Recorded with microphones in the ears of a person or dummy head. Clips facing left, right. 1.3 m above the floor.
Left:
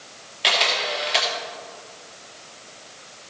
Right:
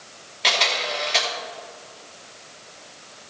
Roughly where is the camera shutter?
Centre.